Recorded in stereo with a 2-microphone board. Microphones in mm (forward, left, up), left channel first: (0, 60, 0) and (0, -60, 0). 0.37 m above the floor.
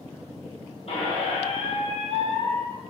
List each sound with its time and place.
0.9 s a squeak: 60° left (ahead or behind), 1.0 m